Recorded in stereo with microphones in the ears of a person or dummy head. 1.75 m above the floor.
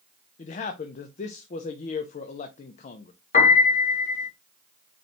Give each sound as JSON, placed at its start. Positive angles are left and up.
{"t": 0.4, "sound": "a man speaking", "side_deg": 40, "distance_m": 0.6}
{"t": 3.3, "sound": "a piano", "side_deg": 40, "distance_m": 1.7}